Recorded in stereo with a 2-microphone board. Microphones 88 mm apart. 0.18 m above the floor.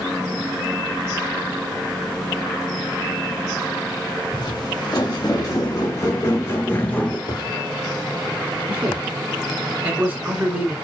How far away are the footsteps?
About 2.5 m.